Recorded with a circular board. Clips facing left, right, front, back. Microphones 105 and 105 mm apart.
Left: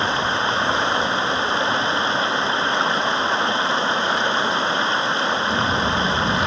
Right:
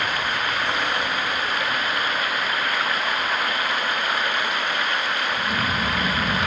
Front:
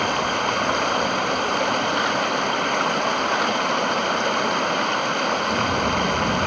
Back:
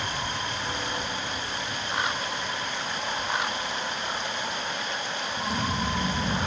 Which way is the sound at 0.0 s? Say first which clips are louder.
Left 4 dB, front 10 dB; 25° left.